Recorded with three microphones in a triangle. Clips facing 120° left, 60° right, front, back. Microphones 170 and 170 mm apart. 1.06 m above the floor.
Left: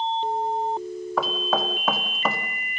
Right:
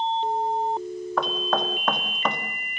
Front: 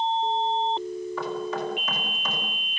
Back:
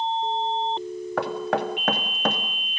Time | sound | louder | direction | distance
1.2 | knocking | even, back 6 dB | 155° right | 1.7 m